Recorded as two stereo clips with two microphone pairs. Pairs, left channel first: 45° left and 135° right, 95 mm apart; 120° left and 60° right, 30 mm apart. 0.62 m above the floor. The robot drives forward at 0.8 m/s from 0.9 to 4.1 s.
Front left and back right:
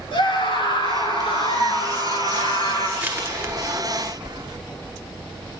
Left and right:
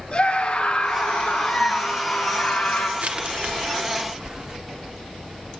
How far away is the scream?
About 9.5 m.